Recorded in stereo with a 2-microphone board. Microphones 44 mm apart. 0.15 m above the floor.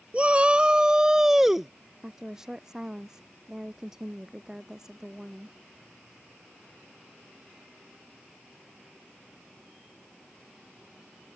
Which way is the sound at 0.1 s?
30° right (ahead or behind).